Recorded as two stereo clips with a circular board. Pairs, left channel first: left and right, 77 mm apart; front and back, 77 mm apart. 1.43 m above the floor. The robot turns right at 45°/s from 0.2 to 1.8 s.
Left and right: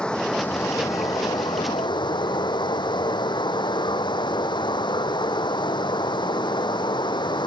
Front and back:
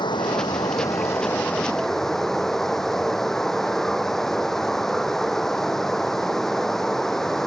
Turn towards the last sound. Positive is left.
turn(degrees=85)